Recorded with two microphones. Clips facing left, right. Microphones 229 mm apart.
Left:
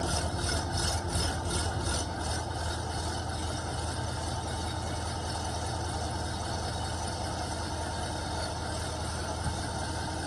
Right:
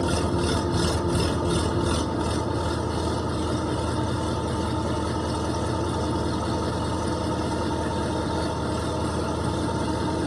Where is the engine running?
80° right.